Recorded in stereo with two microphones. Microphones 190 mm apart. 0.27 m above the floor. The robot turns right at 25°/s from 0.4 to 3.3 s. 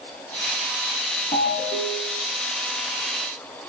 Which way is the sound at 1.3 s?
55° left (ahead or behind).